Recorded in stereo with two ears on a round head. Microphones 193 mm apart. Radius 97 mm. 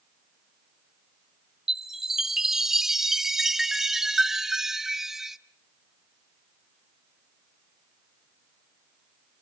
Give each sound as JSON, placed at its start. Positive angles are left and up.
{"t": 1.7, "sound": "a chime", "side_deg": 0, "distance_m": 0.6}